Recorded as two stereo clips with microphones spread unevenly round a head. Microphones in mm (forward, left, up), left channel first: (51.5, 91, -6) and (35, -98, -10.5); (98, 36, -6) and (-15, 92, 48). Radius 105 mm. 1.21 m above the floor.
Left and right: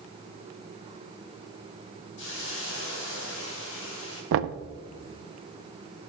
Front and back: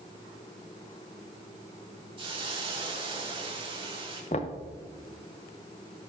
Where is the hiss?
115° left, 3 m.